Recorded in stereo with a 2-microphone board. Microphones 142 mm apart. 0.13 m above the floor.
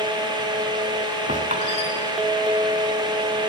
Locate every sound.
1.3 s a squeak: 55° right (ahead or behind), 5.5 m